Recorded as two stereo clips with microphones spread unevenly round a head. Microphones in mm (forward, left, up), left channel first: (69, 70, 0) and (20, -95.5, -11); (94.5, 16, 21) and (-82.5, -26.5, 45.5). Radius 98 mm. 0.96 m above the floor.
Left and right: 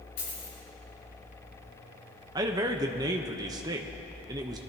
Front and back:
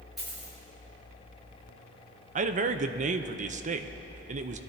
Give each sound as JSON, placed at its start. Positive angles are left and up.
{"t": 0.2, "sound": "a dropped coin", "azimuth_deg": 105, "distance_m": 5.0}
{"t": 2.4, "sound": "a man speaking", "azimuth_deg": -150, "distance_m": 0.7}